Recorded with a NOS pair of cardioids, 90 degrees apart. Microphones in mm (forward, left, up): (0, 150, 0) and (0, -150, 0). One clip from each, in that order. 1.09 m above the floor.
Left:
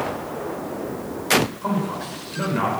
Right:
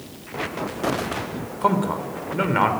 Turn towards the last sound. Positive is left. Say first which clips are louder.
# right 5 dB
turn(degrees=-65)